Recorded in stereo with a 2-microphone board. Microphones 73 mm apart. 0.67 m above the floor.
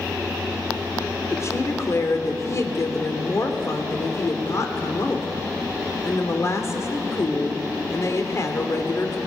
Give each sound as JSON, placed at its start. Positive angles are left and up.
{"t": 1.3, "sound": "a woman speaking", "side_deg": 40, "distance_m": 2.5}